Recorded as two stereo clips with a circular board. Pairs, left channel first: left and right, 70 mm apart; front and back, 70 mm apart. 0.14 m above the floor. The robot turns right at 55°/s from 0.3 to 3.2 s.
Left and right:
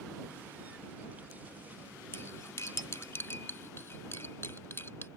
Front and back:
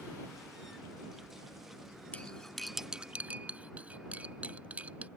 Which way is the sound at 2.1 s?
60° left.